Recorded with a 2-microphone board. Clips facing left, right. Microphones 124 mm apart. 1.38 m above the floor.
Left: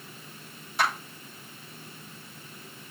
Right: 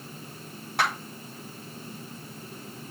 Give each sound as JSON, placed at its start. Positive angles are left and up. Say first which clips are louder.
{"t": 0.8, "sound": "a clap", "louder": "even", "side_deg": -65, "distance_m": 6.5}